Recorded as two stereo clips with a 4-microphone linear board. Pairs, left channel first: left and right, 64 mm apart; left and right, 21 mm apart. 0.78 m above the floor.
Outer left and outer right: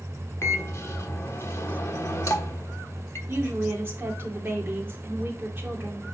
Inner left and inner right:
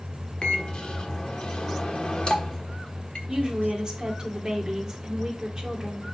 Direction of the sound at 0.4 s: 50° left (ahead or behind).